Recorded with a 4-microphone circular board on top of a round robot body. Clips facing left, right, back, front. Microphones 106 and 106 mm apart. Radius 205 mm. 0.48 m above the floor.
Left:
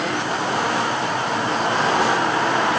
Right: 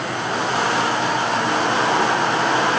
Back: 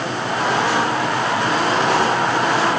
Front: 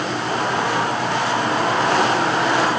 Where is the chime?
I don't hear a chime.